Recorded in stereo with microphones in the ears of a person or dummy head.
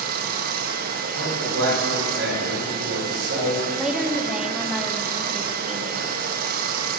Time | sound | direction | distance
0.0 | running water | 50° right (ahead or behind) | 1.3 m
1.1 | a man speaking | 90° right | 6 m
3.8 | a woman speaking | centre (ahead or behind) | 1.4 m